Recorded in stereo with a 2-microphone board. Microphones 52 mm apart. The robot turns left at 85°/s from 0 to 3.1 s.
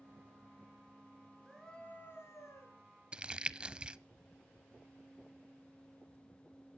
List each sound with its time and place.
1.4 s a scream: 170° right, 6 m; by 2.8 s 75° left, 6 m
3.1 s crumpling: 20° right (ahead or behind), 0.6 m